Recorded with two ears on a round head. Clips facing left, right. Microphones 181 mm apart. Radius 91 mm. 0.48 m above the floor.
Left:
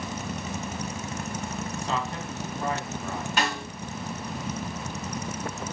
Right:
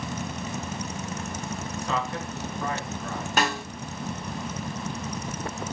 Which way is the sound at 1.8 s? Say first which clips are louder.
Right 2 dB; 25° left (ahead or behind).